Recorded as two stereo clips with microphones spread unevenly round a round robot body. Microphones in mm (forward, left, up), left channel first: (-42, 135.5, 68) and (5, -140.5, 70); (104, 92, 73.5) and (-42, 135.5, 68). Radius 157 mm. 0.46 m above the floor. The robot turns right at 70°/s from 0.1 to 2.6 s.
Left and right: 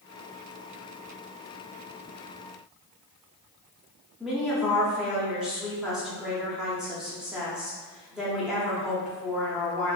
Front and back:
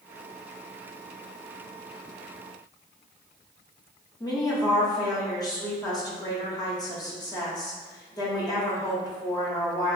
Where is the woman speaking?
5° left, 0.8 m.